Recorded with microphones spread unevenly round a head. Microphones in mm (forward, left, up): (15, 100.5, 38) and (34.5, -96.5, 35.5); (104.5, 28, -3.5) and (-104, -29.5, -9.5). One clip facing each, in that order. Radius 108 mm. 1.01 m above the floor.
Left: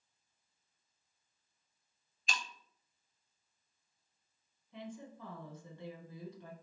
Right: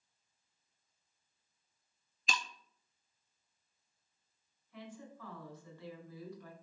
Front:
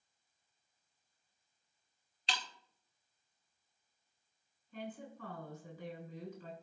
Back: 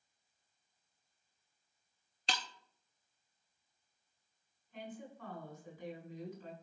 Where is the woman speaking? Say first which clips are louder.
Left 3 dB, front 2 dB; 30° left, 4.5 m.